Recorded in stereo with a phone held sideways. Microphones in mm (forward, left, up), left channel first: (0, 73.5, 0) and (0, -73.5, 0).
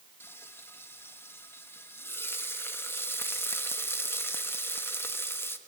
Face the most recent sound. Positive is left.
turn(degrees=15)  # may be behind; listen again after turning